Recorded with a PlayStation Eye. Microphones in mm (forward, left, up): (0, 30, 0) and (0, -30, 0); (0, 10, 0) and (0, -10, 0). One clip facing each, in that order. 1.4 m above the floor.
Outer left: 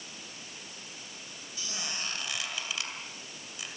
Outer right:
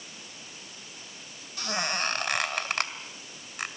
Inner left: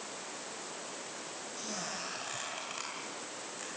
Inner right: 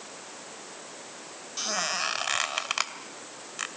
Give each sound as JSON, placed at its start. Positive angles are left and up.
{"t": 1.6, "sound": "a squeak", "side_deg": -60, "distance_m": 1.9}